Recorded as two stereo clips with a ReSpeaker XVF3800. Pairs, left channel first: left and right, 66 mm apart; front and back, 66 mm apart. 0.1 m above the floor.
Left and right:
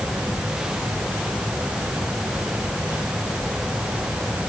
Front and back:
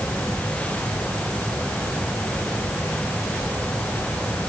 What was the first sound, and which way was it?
Only background noise.